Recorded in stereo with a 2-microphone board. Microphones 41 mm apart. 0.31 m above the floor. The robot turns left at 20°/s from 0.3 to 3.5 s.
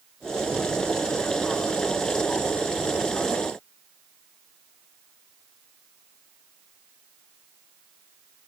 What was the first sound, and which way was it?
Only background noise.